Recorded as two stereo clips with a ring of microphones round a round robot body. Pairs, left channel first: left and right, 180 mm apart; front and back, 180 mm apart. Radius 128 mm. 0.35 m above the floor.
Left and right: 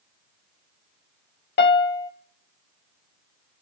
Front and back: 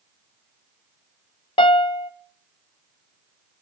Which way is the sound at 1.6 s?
65° left.